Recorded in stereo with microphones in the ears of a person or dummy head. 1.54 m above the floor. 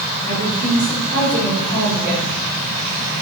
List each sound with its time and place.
0.2 s a woman speaking: 40° right (ahead or behind), 6 m; by 2.4 s 30° right (ahead or behind), 3.5 m